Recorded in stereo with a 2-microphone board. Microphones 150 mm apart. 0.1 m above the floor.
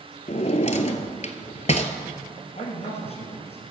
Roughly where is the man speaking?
Left.